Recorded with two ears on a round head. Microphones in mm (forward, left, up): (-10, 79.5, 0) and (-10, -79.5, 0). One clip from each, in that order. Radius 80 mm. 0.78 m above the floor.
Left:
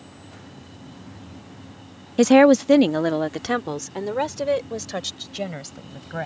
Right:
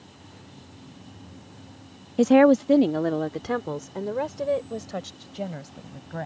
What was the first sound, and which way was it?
A woman speaking, 40° left (ahead or behind).